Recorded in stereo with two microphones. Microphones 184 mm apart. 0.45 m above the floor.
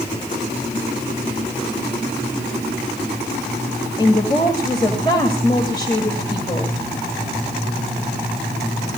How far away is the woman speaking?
About 2 m.